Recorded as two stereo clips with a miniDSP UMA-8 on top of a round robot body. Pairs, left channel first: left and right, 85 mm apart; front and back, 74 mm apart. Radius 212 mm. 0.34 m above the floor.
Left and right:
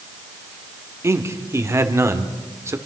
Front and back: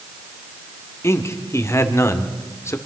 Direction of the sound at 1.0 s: 40° right.